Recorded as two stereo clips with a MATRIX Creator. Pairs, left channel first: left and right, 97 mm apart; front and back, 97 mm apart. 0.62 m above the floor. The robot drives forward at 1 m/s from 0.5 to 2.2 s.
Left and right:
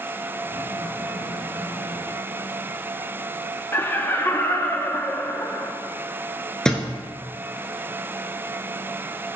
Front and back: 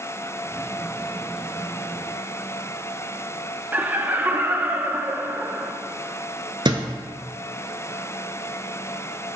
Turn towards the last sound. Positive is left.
turn(degrees=170)